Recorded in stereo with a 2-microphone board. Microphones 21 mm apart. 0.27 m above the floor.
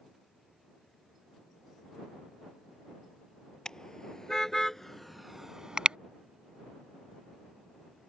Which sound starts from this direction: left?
A car horn, at 3.6 s.